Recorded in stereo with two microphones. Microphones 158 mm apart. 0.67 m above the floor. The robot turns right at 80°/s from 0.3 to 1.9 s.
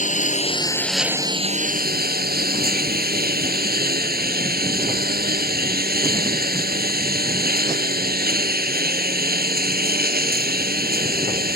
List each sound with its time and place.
0.0 s a lawn mower: 130° left; by 11.6 s 105° right